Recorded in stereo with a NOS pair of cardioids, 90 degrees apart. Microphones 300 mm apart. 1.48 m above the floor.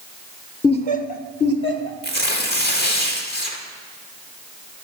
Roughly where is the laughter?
Ahead.